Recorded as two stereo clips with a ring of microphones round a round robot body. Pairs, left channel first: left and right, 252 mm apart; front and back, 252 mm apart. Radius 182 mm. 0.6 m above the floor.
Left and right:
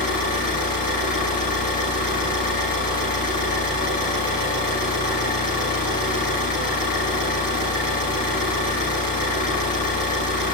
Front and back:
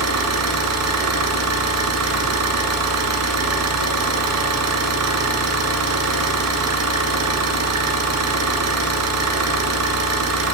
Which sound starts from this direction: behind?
An engine running, at 0.0 s.